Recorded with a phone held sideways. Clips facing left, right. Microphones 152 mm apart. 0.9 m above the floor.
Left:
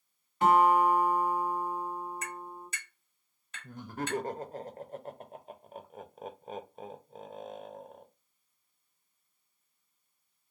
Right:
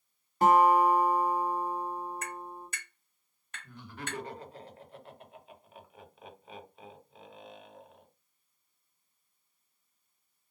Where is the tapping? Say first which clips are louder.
Right 1 dB; 55° right (ahead or behind), 2.5 m.